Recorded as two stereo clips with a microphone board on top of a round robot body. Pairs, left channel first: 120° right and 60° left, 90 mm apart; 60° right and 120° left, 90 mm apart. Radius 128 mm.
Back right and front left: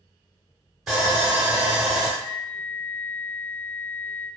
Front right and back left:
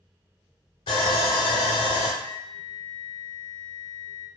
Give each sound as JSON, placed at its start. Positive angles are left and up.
{"t": 0.9, "sound": "sawing", "azimuth_deg": -25, "distance_m": 0.5}
{"t": 2.2, "sound": "a flute", "azimuth_deg": 105, "distance_m": 0.7}